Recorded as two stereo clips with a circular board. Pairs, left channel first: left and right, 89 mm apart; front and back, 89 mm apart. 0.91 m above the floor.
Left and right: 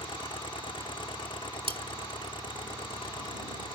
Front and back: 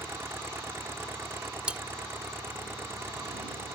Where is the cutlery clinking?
100° right.